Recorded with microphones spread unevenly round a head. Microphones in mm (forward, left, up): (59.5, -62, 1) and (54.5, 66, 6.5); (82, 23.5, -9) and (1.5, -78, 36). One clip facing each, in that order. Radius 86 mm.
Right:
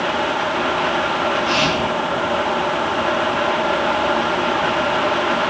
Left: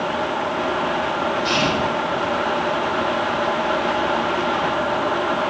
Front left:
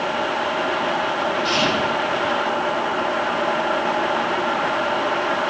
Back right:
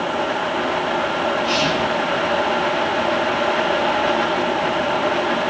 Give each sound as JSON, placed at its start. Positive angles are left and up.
{"t": 1.4, "sound": "whispering", "azimuth_deg": 115, "distance_m": 9.0}